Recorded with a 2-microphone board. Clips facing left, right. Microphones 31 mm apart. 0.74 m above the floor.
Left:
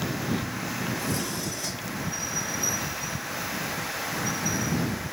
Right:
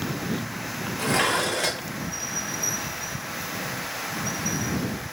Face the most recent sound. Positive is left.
turn(degrees=-65)  # may be behind; listen again after turning